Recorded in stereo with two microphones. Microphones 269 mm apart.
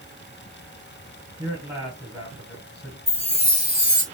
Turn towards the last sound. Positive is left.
turn(degrees=-25)  # may be behind; listen again after turning